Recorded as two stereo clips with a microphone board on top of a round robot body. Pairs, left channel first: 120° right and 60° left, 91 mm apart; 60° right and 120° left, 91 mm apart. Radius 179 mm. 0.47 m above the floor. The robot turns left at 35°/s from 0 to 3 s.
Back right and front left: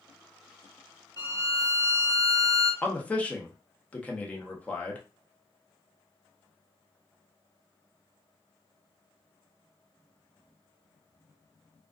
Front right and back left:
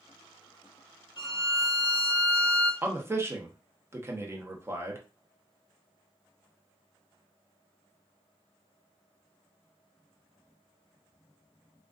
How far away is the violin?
About 2.0 m.